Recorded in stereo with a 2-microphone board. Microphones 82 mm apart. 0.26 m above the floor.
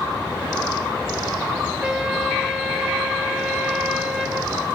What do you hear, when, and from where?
1.8 s a trumpet: 5° right (ahead or behind), 3.5 m